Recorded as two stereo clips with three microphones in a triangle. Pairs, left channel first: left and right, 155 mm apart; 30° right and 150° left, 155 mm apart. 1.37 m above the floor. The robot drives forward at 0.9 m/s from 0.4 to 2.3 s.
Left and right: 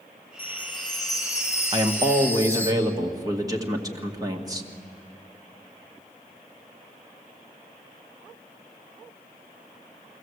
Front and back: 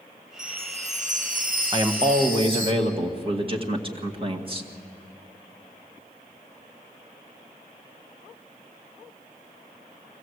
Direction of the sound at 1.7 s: 145° right.